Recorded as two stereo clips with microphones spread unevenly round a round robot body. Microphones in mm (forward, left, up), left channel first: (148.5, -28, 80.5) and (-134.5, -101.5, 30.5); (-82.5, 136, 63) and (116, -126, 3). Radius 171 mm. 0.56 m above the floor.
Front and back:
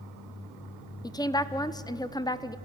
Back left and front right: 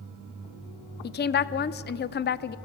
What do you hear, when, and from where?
1.0 s a woman speaking: 95° left, 0.6 m